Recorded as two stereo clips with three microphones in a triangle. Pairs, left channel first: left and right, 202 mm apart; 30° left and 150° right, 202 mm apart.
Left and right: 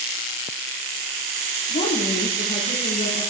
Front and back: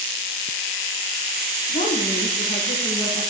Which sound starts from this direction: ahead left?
A woman speaking, at 1.7 s.